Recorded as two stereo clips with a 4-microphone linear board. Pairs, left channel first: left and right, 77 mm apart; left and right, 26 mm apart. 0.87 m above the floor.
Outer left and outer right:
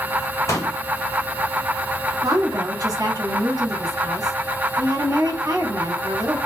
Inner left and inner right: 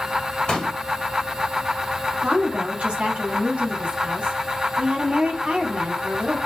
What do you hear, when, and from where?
0.5 s a pop: 40° left (ahead or behind), 1.8 m
2.2 s a woman speaking: 50° right (ahead or behind), 1.7 m